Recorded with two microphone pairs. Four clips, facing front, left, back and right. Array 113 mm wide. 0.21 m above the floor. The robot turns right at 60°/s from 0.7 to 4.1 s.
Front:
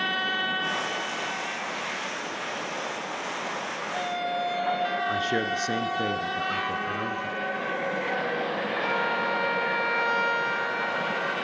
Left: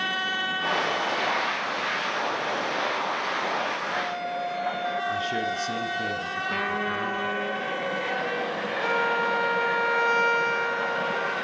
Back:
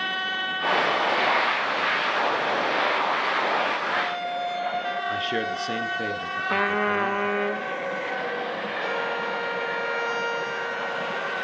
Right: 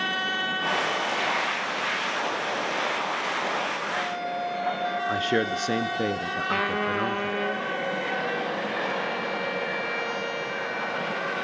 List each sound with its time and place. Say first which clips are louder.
5.1 s a man speaking: right 3 dB, even; 95° right, 2 m
6.5 s a trumpet: right 3 dB, back 6 dB; 160° right, 1.1 m
8.8 s a violin: left 4 dB, front 1 dB; 85° left, 10 m